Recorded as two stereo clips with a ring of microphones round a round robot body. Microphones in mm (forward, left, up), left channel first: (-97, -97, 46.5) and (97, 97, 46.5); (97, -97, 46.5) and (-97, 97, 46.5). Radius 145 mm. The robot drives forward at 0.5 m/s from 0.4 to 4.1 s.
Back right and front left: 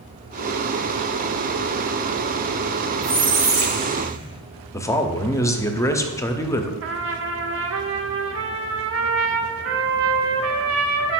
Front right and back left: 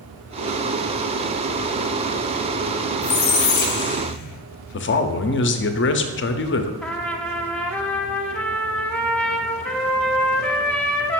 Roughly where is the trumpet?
Ahead left.